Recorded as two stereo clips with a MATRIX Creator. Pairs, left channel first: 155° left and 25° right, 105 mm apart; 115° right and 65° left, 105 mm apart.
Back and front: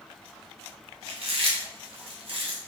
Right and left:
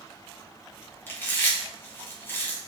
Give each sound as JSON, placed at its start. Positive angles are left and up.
{"t": 1.1, "sound": "chewing", "azimuth_deg": -45, "distance_m": 1.0}